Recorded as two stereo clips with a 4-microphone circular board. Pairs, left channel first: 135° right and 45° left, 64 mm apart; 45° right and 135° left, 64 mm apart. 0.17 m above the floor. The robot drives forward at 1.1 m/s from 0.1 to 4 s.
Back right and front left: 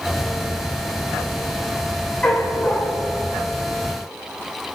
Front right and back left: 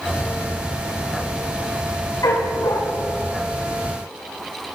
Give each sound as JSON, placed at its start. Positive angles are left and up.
{"t": 2.2, "sound": "a dog barking", "azimuth_deg": -65, "distance_m": 8.0}